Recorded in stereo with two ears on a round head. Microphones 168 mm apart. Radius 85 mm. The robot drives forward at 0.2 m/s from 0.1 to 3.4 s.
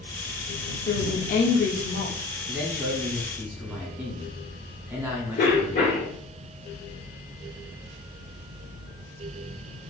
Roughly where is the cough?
Left.